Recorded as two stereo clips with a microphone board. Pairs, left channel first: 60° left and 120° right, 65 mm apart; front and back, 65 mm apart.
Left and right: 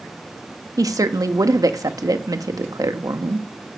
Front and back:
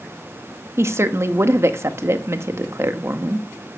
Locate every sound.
0.8 s a woman speaking: 135° right, 1.6 m